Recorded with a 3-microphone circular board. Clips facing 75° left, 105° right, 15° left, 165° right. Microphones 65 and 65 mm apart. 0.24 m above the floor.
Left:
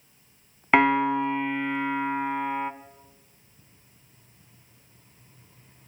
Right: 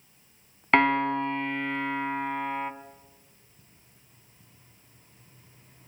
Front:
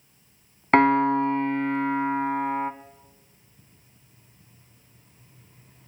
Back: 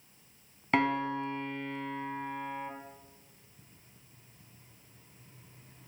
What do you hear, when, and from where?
0.7 s a piano: 10° right, 0.8 m